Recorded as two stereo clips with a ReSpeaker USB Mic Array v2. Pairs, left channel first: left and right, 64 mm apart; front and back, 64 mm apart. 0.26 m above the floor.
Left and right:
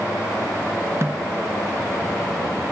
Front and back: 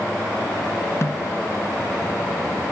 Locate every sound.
1.0 s a snare drum: 40° right, 0.6 m